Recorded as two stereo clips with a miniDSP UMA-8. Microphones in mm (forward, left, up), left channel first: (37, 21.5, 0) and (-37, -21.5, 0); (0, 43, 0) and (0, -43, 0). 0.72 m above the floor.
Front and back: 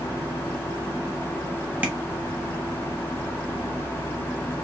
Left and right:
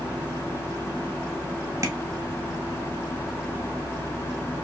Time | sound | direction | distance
1.8 | tapping | 95° right | 1.2 m